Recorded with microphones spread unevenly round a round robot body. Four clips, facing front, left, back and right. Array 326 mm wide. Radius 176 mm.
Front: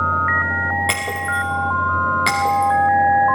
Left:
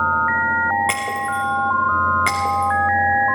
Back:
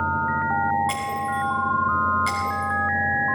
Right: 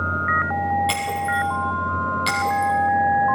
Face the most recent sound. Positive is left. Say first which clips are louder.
# left 1 dB, front 2 dB
turn(degrees=25)